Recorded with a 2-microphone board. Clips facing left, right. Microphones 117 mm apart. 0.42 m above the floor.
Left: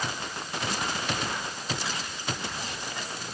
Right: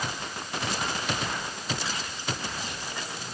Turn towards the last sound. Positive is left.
No sound to turn to.